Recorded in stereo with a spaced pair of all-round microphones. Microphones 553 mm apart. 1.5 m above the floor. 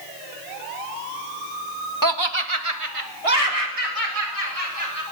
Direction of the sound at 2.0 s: 35° right (ahead or behind).